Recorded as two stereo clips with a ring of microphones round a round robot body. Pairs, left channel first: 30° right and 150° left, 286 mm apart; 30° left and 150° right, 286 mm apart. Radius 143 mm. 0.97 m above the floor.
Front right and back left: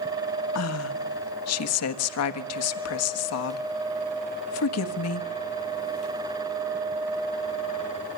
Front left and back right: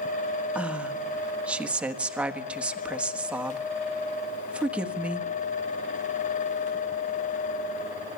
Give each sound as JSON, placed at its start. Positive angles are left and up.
{"t": 0.6, "sound": "a woman speaking", "azimuth_deg": -65, "distance_m": 1.3}